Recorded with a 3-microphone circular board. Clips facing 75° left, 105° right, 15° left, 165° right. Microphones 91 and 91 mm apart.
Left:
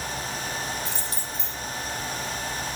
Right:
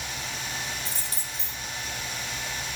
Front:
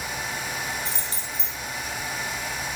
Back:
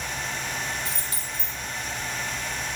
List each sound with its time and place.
0.8 s keys jangling: 45° right, 4 m